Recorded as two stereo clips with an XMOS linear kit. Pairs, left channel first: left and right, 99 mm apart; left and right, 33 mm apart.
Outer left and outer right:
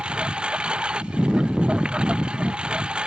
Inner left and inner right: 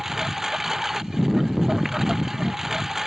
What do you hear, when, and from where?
0.0 s a lawn mower: 10° right (ahead or behind)